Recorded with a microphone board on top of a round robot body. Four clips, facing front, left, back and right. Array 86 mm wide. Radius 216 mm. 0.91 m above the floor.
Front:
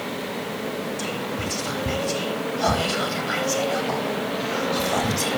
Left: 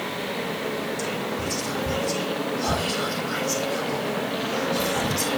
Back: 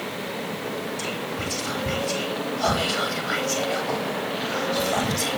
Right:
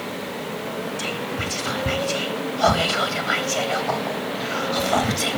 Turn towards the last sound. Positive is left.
turn(degrees=-90)